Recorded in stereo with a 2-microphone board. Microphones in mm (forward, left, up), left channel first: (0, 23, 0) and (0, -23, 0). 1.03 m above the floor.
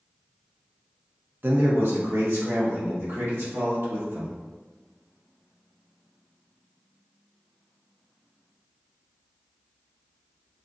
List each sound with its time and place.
1.4 s a man speaking: 50° right (ahead or behind), 0.7 m; by 4.3 s 70° right (ahead or behind), 2.5 m